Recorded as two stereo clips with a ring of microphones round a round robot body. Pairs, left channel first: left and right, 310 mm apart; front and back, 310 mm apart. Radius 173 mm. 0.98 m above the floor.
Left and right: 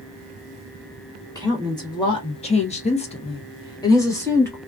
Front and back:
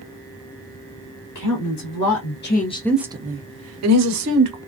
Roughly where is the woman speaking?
Ahead.